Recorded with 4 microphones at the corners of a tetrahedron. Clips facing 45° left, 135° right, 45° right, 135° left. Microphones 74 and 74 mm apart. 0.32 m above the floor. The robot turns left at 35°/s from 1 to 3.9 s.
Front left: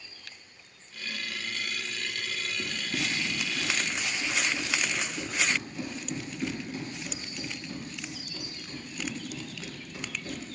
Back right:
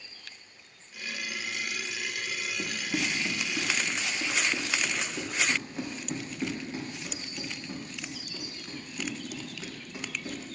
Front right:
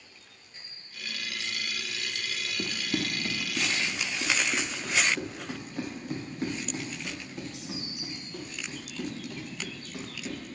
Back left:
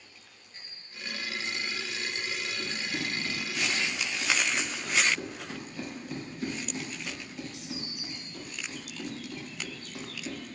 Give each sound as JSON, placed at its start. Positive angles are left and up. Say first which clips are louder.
{"t": 2.6, "sound": "running footsteps", "louder": "back right 3 dB, front right 3 dB", "azimuth_deg": -60, "distance_m": 1.2}